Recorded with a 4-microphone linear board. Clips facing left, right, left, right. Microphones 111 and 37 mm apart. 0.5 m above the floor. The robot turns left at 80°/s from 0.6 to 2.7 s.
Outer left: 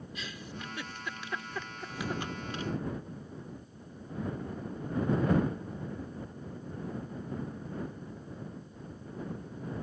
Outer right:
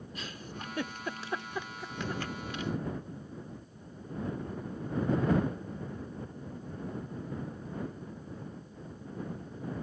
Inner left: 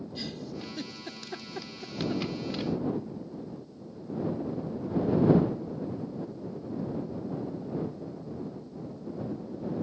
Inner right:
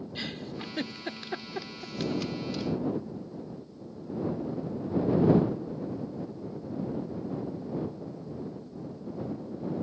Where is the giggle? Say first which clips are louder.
Outer right 1 dB, inner right 2 dB; 45° right (ahead or behind); by 2.7 s 40° left (ahead or behind).